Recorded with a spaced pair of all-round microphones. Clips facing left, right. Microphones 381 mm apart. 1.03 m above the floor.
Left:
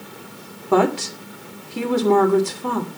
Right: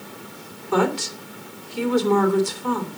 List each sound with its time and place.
0.7 s a woman speaking: 70° left (ahead or behind), 2 m